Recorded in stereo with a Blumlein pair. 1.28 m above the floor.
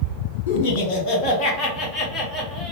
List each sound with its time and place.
0.5 s laughter: 50° left, 1.5 m; by 2.7 s 10° left, 2 m